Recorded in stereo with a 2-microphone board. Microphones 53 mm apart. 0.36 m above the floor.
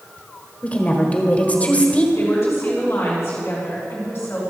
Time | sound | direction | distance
0.6 | a woman speaking | 30° left (ahead or behind) | 1.4 m
2.1 | a woman speaking | 40° left (ahead or behind) | 3 m